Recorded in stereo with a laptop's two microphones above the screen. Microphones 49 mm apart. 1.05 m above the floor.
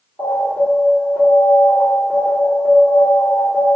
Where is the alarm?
70° left (ahead or behind), 1.9 m.